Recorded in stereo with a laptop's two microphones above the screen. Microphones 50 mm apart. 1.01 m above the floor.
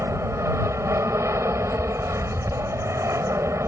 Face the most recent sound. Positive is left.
turn(degrees=-70)  # may be behind; listen again after turning